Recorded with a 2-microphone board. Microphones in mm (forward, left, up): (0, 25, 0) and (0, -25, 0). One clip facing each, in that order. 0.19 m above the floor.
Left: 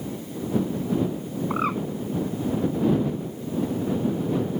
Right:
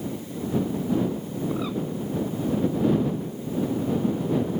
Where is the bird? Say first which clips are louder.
Left 4 dB; 45° left (ahead or behind).